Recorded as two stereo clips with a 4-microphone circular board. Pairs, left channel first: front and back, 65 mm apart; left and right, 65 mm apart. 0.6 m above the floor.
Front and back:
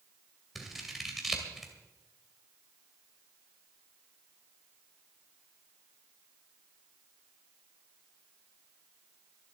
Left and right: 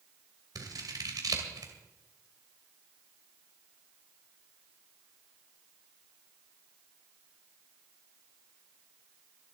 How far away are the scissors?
About 2.5 m.